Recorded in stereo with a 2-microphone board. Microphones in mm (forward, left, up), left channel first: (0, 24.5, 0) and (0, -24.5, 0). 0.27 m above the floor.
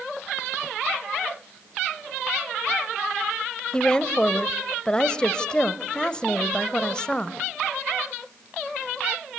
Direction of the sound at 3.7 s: 20° left (ahead or behind).